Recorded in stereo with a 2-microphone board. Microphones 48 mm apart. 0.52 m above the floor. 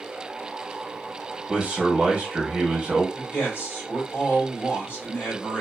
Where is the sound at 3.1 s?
55° left (ahead or behind), 1.9 m.